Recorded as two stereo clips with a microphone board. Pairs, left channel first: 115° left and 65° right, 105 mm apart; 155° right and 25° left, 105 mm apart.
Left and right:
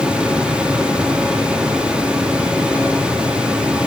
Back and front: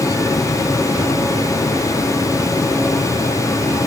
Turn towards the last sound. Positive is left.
No sound to turn to.